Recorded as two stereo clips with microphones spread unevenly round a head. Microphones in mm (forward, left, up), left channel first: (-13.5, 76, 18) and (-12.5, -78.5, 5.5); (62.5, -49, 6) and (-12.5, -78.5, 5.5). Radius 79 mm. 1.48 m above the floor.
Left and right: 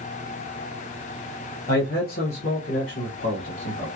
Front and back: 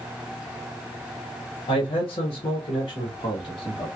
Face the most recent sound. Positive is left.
turn(degrees=80)